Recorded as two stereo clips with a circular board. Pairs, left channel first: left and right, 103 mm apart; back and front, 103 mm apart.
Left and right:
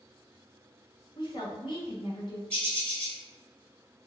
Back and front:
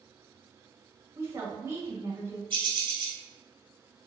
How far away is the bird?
About 1.8 m.